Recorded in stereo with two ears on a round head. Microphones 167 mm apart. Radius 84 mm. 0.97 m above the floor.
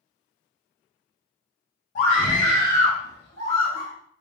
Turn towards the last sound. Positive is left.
turn(degrees=75)  # may be behind; listen again after turning